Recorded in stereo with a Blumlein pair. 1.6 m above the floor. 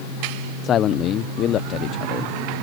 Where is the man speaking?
30° left.